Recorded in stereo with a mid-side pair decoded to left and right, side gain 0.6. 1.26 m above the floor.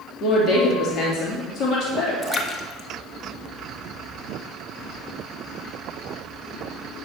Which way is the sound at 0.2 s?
50° left.